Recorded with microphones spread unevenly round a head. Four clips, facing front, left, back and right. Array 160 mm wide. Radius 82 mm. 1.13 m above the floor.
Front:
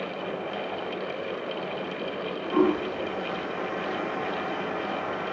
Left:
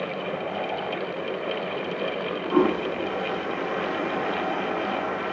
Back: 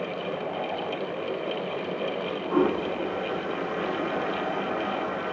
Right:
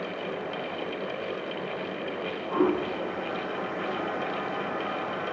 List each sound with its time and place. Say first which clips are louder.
2.5 s a toilet flushing: left 3 dB, front 1 dB; 100° left, 0.7 m